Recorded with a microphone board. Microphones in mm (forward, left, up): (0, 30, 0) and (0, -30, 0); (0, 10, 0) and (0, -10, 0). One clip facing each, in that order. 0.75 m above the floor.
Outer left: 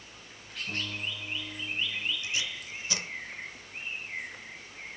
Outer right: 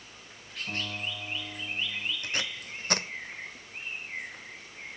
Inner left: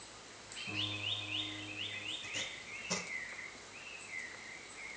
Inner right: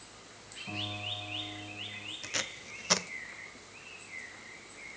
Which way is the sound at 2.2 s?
55° right (ahead or behind).